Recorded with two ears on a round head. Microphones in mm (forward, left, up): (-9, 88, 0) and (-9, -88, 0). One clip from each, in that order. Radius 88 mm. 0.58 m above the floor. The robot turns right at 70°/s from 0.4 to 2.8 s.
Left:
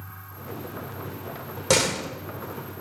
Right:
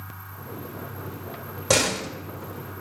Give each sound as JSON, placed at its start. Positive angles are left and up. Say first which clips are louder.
{"t": 1.7, "sound": "a door slam", "louder": "even", "side_deg": 10, "distance_m": 1.0}